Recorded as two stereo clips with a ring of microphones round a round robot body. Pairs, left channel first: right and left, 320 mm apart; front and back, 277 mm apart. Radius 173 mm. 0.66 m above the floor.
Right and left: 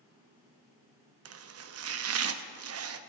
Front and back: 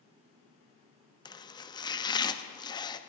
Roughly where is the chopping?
Left.